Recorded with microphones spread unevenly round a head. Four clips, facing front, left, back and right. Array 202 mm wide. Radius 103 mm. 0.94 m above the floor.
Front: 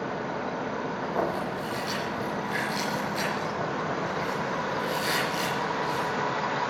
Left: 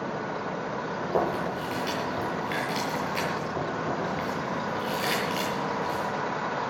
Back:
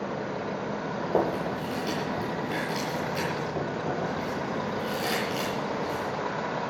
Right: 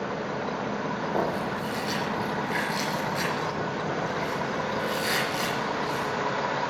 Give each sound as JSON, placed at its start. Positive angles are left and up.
{"t": 1.0, "sound": "chewing", "azimuth_deg": 170, "distance_m": 8.5}